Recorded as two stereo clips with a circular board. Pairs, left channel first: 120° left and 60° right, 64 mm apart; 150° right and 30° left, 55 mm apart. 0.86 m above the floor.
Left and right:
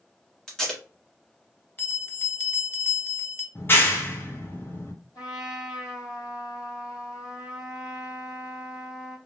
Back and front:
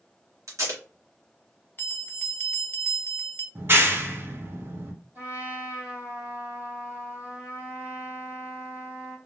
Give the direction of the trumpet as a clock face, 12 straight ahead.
9 o'clock.